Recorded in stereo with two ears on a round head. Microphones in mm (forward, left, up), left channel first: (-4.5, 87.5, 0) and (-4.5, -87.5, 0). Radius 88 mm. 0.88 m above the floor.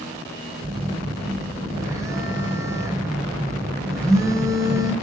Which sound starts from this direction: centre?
A phone buzzing, at 0.6 s.